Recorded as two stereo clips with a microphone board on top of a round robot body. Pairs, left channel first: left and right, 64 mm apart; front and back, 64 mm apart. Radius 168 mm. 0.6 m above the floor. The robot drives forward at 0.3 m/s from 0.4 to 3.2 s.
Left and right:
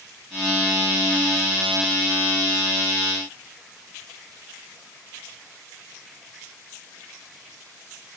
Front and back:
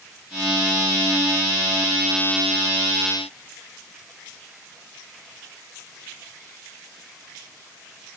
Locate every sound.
Only background noise.